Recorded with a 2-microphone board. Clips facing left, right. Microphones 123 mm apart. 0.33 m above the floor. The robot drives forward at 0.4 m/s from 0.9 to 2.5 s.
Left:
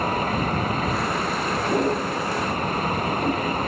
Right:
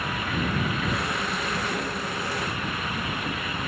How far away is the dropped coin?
No dropped coin in this recording.